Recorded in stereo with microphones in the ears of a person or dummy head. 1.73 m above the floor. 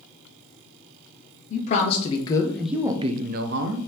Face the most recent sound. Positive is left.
turn(degrees=-75)  # may be behind; listen again after turning